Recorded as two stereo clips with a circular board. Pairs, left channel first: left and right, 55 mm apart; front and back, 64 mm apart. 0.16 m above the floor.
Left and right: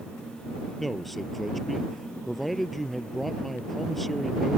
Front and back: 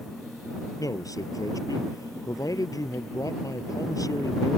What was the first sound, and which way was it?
A man speaking, 5° left.